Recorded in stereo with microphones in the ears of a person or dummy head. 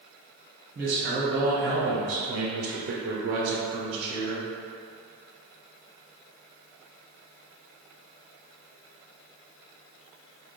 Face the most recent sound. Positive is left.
turn(degrees=-25)  # may be behind; listen again after turning